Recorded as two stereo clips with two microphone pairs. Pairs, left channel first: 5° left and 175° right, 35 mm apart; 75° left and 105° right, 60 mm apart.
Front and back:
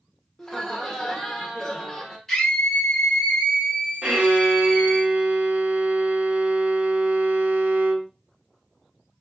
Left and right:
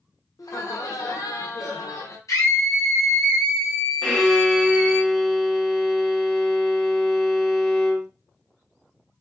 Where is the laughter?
85° left, 1.2 m.